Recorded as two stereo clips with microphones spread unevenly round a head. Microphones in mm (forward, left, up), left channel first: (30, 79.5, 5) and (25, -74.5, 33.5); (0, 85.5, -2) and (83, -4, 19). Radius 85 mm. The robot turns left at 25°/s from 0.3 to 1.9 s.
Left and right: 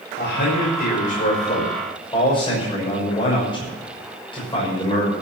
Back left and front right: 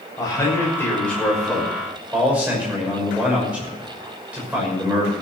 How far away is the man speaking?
About 6 m.